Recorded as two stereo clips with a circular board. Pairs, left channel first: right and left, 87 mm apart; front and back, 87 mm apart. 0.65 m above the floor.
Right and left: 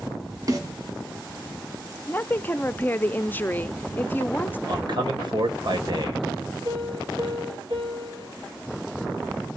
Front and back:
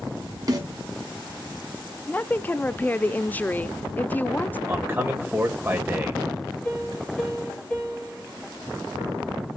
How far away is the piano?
About 8 m.